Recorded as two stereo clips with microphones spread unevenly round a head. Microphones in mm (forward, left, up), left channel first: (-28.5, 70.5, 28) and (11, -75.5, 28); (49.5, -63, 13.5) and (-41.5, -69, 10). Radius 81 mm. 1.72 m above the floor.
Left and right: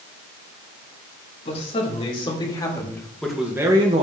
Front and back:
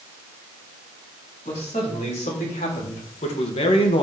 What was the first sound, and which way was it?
A man speaking, 55° left.